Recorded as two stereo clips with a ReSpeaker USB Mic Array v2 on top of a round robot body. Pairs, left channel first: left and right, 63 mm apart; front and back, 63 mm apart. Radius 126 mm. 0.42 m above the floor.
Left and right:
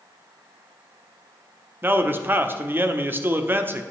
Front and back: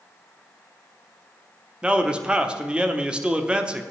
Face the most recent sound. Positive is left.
turn(degrees=-115)